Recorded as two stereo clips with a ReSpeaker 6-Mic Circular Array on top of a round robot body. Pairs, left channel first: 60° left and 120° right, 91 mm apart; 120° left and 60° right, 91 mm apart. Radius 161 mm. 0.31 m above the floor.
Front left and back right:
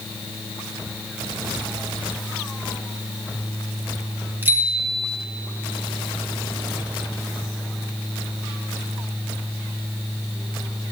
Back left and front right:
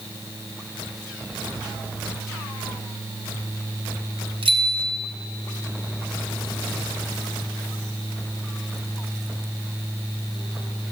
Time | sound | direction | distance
4.4 | a bicycle bell | 55° right | 4 m